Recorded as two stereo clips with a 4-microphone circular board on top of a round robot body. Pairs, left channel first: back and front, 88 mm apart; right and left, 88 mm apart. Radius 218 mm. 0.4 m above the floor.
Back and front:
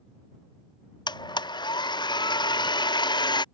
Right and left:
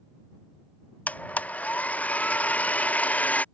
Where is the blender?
160° right.